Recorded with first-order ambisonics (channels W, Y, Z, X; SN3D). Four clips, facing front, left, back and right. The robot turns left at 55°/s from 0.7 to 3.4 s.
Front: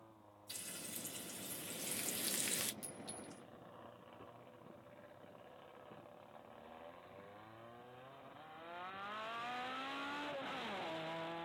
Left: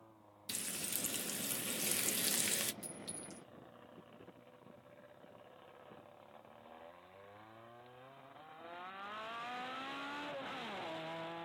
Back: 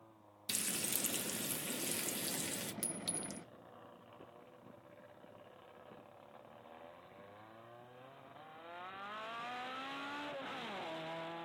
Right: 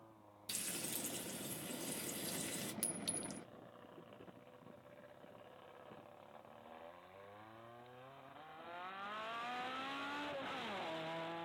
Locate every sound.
0.5 s frying: 170° left, 0.6 m; by 2.7 s 60° left, 0.6 m
2.8 s a clink: 130° right, 0.7 m; by 3.4 s 165° right, 0.7 m